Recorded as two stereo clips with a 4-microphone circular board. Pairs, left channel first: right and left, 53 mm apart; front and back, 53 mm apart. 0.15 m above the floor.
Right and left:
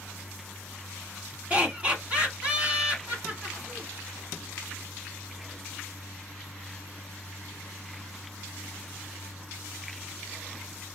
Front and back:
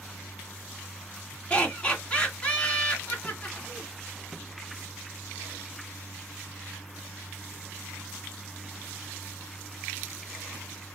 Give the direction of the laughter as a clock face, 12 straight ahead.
10 o'clock.